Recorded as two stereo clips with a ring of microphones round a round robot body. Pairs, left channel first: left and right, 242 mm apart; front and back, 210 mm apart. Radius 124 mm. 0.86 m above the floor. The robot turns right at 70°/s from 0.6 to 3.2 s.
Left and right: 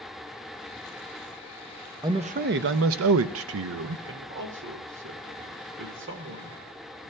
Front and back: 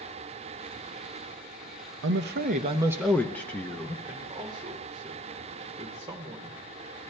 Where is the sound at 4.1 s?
110° right, 1.5 m.